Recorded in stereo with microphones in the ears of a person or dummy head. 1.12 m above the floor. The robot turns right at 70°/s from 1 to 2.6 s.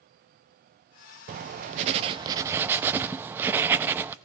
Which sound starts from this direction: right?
Writing, at 1.3 s.